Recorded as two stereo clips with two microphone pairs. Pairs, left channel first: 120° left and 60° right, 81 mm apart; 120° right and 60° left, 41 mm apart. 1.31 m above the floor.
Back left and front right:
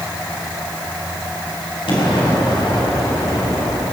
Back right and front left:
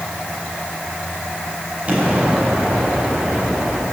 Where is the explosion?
120° left, 4 m.